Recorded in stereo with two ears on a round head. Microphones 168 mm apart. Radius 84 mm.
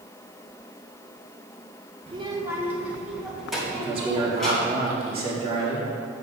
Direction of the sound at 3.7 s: 30° right (ahead or behind).